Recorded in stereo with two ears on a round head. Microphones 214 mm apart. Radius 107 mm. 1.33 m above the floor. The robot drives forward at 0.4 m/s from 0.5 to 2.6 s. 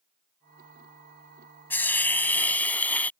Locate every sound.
1.7 s a hiss: 10° left (ahead or behind)